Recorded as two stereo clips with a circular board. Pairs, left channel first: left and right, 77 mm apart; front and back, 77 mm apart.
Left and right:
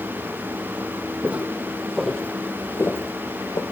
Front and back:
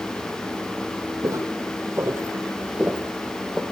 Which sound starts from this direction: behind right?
Footsteps, at 1.2 s.